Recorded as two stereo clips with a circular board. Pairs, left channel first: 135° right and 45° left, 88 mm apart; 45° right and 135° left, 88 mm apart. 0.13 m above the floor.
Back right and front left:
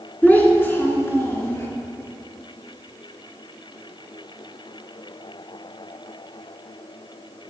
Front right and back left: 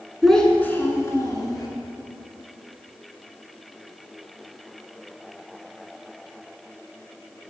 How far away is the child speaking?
About 0.8 m.